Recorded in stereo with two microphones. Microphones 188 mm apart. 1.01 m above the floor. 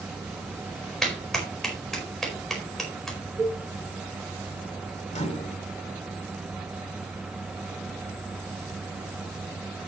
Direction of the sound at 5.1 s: 35° left (ahead or behind).